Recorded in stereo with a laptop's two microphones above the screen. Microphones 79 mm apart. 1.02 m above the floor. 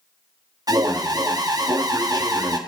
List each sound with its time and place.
0.7 s an alarm: 55° right (ahead or behind), 1.2 m